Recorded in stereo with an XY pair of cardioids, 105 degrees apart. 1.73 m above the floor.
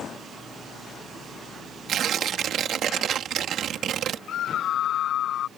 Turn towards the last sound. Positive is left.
turn(degrees=65)